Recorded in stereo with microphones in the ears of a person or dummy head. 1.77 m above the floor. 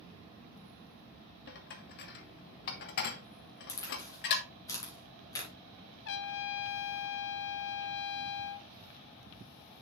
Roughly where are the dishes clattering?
Left.